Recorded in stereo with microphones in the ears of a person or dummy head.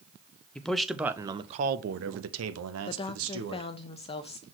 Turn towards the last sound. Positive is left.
turn(degrees=25)  # may be behind; listen again after turning